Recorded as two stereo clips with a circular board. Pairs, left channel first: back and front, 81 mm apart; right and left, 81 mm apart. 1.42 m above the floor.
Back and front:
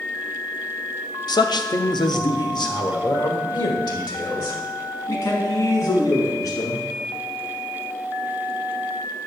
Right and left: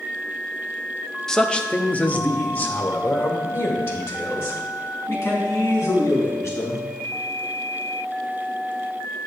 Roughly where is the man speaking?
Behind.